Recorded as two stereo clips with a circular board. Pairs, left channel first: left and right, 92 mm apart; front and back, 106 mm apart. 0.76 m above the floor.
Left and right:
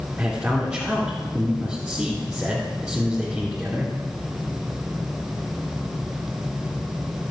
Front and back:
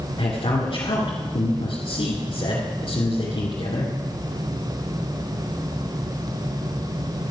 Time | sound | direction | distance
0.2 | a man speaking | 10° right | 2.5 m